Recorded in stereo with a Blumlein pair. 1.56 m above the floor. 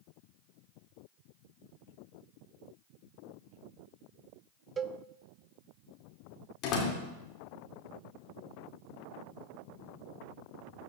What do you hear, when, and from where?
4.8 s a cowbell: 20° right, 0.5 m
6.6 s a door slam: 35° left, 2.5 m